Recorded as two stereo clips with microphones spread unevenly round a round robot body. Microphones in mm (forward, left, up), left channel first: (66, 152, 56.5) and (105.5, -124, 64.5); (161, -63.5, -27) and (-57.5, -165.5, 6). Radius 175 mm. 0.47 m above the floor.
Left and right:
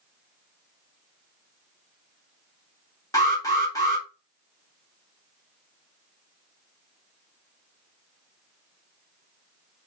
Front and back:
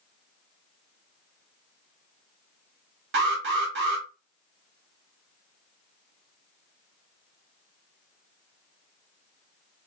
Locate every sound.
3.1 s an alarm: 170° left, 0.7 m